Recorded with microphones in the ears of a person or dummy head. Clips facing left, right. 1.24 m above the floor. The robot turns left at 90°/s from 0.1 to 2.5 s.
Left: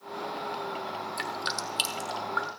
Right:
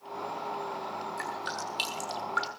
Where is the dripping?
45° left (ahead or behind), 1.1 m; by 2.5 s 30° right (ahead or behind), 1.1 m.